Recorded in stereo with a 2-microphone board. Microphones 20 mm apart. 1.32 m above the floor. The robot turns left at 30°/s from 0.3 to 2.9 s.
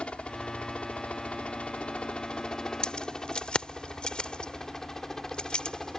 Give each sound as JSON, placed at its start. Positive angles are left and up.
{"t": 0.0, "sound": "a helicopter", "side_deg": 55}
{"t": 2.8, "sound": "keys jangling", "side_deg": 45}